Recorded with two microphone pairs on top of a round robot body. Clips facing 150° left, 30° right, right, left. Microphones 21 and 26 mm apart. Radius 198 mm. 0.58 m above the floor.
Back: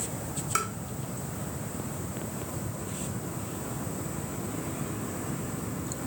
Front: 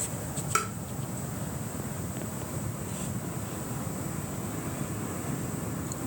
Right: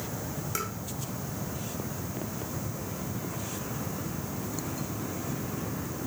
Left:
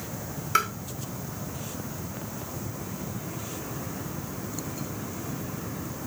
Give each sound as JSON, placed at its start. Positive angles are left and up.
{"t": 0.6, "sound": "tapping", "azimuth_deg": 45, "distance_m": 1.8}